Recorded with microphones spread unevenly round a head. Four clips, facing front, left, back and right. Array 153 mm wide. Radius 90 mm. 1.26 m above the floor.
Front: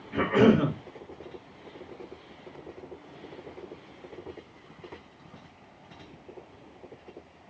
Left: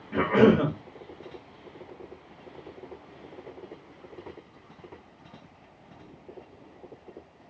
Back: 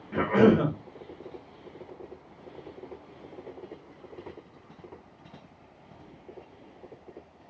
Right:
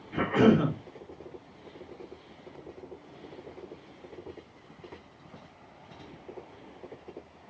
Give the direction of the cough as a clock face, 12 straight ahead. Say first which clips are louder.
Left 3 dB, even; 8 o'clock.